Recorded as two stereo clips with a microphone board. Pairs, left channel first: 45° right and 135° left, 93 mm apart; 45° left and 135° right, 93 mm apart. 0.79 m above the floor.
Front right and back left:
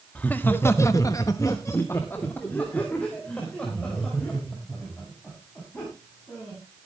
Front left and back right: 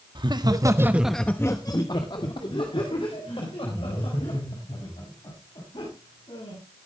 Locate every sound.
0.1 s laughter: 115° right, 1.7 m; by 6.6 s 35° left, 8 m